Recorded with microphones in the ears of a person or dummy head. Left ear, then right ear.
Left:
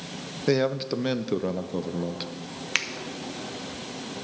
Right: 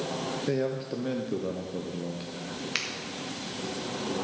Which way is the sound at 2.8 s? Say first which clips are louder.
Left 5 dB; 25° left (ahead or behind).